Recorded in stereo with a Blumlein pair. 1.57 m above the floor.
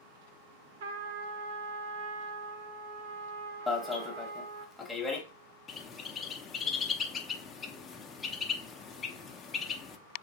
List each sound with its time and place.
0.8 s a trumpet: 55° right, 0.6 m
3.7 s an alarm: 5° left, 0.9 m
5.7 s a bird: 20° left, 0.5 m